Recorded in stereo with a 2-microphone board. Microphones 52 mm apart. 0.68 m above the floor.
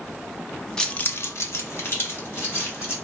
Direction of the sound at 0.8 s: 10° left (ahead or behind).